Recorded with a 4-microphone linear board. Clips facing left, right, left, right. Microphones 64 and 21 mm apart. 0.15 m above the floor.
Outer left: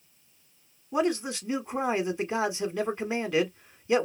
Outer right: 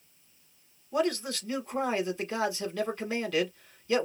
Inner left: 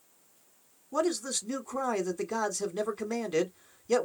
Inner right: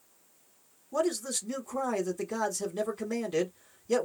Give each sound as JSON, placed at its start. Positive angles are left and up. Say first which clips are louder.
{"t": 0.9, "sound": "a man speaking", "louder": "outer left 2 dB, even", "side_deg": 20, "distance_m": 1.1}